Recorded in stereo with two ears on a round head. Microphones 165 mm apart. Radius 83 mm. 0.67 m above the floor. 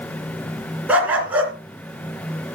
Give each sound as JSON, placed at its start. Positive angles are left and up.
{"t": 0.9, "sound": "a dog barking", "side_deg": -10, "distance_m": 3.0}